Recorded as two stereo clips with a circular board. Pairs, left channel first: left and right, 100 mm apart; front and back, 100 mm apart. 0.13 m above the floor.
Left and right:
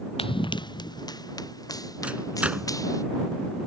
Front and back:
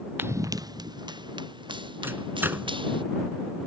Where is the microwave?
150° right.